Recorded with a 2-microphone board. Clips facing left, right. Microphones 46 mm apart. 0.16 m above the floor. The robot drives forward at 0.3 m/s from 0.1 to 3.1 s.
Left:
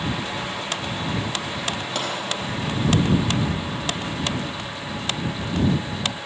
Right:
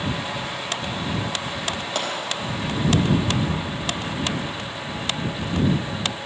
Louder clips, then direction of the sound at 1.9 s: Right 2 dB; centre (ahead or behind).